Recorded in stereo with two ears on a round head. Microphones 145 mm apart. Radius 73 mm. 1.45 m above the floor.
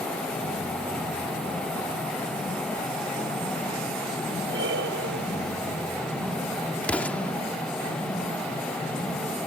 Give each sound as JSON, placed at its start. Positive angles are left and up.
{"t": 4.5, "sound": "breathing", "side_deg": -80}
{"t": 6.8, "sound": "an explosion", "side_deg": 10}